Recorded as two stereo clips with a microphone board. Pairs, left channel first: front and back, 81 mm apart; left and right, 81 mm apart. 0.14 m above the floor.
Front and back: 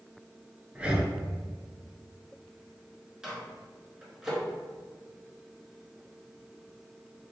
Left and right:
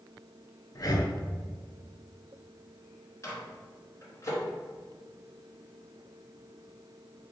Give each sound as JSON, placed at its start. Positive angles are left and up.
{"t": 0.8, "sound": "breathing", "azimuth_deg": 105, "distance_m": 0.6}
{"t": 3.2, "sound": "a microwave", "azimuth_deg": 105, "distance_m": 1.7}